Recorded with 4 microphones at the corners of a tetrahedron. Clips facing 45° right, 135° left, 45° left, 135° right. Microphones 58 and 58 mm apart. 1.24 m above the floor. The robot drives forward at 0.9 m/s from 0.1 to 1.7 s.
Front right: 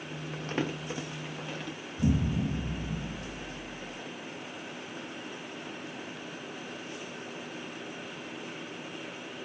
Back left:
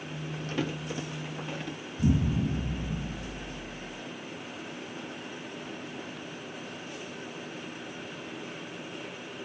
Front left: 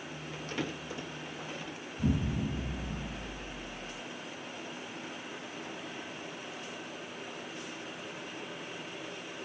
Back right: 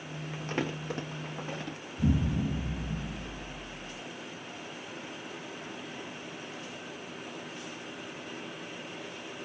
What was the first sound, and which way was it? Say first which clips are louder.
Crumpling: even, back right 4 dB; 70° right.